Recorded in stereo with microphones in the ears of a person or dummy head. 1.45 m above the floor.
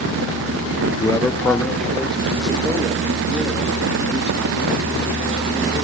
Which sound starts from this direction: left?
A man speaking, at 1.0 s.